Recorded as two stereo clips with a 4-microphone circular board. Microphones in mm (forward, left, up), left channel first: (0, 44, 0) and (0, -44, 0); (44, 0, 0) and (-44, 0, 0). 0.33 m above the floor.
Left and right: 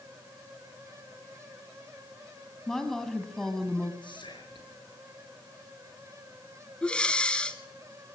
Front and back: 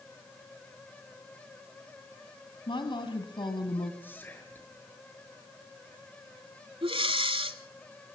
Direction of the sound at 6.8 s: 170° left.